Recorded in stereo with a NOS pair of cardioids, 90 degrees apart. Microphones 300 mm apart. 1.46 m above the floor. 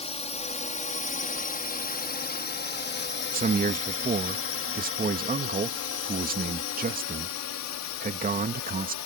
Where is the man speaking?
30° right.